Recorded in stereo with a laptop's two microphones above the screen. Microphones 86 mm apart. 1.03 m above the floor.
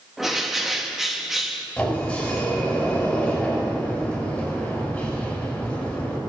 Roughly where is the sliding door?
Centre.